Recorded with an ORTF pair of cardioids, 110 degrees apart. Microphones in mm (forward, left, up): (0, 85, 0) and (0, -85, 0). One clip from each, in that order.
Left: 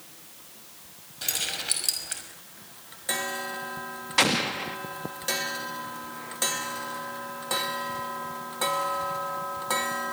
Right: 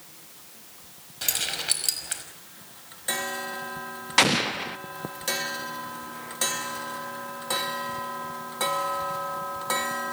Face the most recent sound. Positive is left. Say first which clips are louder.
# right 2 dB
turn(degrees=-25)